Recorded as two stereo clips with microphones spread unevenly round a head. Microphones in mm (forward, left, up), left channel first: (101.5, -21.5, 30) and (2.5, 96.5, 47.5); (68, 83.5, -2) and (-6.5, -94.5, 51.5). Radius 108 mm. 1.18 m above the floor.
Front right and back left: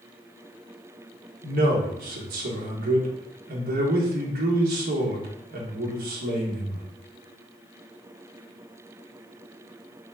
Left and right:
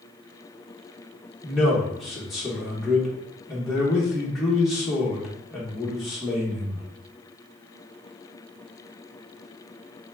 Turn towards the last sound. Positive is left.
turn(degrees=155)